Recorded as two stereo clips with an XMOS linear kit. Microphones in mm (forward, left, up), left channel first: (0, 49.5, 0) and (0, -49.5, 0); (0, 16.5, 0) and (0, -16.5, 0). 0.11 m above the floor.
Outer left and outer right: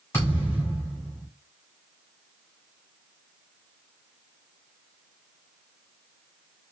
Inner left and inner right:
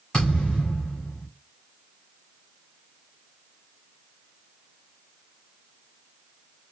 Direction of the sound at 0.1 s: 30° left (ahead or behind).